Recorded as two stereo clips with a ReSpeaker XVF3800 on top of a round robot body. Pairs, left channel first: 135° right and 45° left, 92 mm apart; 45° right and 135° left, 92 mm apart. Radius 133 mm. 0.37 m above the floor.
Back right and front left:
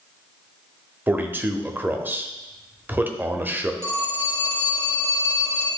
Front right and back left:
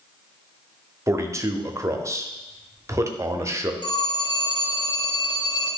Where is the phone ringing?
15° right, 1.9 m.